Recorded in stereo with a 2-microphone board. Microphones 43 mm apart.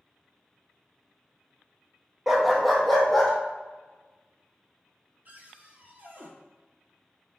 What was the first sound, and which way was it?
A dog barking, 10° right (ahead or behind).